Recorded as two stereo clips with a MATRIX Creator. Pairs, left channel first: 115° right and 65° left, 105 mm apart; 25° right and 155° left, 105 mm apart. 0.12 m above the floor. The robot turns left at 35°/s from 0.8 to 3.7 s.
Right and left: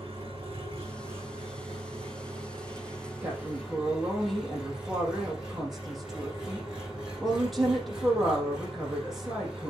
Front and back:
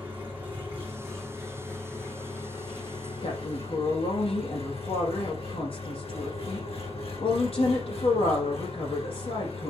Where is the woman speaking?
10° right, 4 m; by 9.7 s 25° right, 4 m.